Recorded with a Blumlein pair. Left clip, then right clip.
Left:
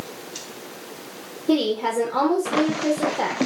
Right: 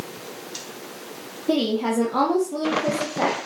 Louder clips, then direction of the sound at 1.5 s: Left 1 dB; straight ahead.